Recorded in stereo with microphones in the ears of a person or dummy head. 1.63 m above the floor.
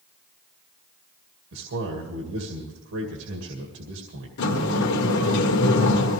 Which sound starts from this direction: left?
A sliding door, at 4.4 s.